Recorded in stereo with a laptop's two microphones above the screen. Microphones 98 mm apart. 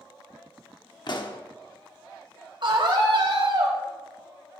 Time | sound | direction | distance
1.1 | a pop | 50° left (ahead or behind) | 1.0 m
2.6 | a scream | 55° right (ahead or behind) | 5 m